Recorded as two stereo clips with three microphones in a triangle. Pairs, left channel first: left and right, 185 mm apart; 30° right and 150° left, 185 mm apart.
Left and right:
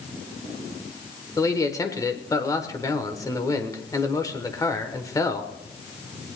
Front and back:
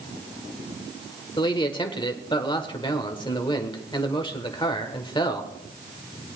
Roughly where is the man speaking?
Ahead left.